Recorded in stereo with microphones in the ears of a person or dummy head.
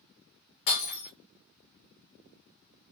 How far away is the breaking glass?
About 1.9 m.